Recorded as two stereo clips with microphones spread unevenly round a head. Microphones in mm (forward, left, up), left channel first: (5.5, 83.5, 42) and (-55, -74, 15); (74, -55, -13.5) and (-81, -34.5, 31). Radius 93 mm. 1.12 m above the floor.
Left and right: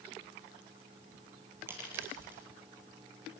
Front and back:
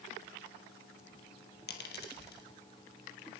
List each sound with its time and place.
1.7 s a dropped coin: 30° right, 3.5 m